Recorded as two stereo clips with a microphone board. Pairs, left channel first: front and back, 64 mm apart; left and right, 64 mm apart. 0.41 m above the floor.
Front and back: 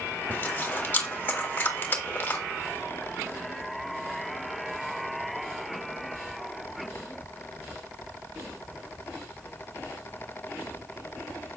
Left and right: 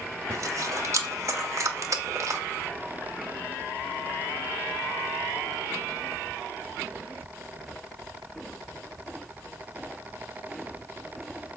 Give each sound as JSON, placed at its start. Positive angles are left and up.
{"t": 0.3, "sound": "chewing", "azimuth_deg": -60, "distance_m": 1.2}